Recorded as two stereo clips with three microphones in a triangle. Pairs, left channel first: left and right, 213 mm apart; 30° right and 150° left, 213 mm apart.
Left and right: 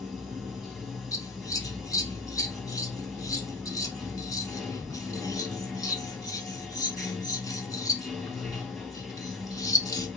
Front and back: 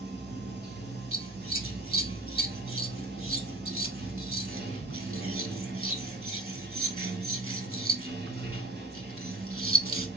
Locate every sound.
0.0 s running water: straight behind, 1.2 m
1.1 s scissors: 160° left, 0.7 m